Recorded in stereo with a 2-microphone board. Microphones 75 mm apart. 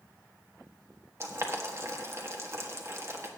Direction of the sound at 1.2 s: 35° right (ahead or behind).